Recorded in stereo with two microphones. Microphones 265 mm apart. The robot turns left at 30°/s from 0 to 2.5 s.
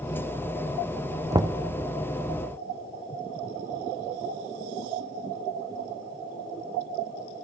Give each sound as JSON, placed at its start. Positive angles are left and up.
{"t": 1.3, "sound": "knocking", "side_deg": -15, "distance_m": 0.5}